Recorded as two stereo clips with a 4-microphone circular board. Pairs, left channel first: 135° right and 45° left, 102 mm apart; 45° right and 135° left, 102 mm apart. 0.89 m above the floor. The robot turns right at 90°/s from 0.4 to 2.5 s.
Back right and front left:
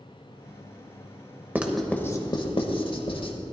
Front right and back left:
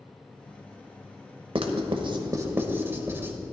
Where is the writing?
115° left, 1.1 m; by 3.3 s 160° right, 1.1 m.